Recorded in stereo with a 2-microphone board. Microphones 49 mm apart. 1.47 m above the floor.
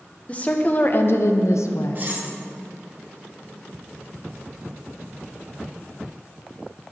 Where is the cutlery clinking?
40° right (ahead or behind), 1.3 m.